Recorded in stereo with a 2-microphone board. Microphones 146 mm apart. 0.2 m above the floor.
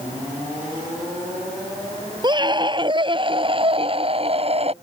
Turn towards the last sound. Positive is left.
turn(degrees=-45)  # may be behind; listen again after turning